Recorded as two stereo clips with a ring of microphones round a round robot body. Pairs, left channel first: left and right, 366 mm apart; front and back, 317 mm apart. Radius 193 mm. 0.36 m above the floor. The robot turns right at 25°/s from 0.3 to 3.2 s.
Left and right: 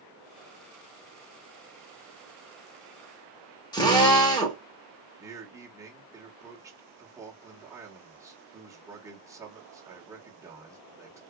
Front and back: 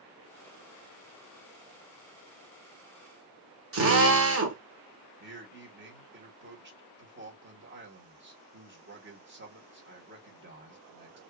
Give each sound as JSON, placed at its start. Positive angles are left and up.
{"t": 3.7, "sound": "a drill", "azimuth_deg": 165, "distance_m": 1.4}
{"t": 5.2, "sound": "a man speaking", "azimuth_deg": -165, "distance_m": 1.5}